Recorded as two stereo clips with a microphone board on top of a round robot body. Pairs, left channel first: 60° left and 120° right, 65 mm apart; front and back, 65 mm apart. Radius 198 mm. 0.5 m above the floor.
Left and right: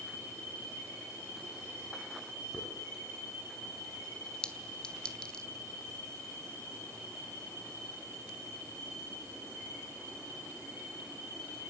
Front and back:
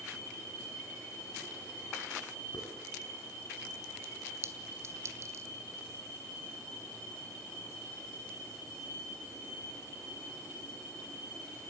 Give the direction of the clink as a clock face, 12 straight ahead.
8 o'clock.